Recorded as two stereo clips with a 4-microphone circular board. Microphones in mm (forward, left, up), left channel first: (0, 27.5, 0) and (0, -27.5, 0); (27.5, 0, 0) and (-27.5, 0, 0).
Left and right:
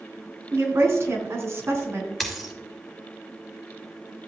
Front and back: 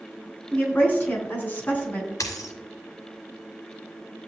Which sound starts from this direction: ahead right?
A woman speaking, at 0.5 s.